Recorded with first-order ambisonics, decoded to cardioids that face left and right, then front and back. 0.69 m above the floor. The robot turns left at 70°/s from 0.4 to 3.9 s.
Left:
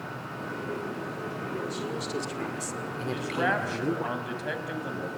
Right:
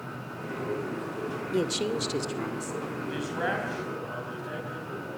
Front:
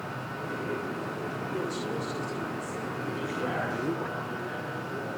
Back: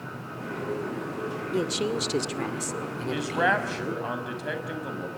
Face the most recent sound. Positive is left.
turn(degrees=135)